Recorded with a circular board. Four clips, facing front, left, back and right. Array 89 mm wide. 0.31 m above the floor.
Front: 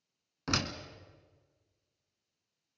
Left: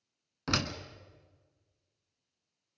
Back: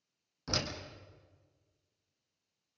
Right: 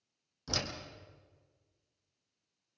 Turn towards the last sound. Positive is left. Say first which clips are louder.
# left 6 dB, front 3 dB
turn(degrees=55)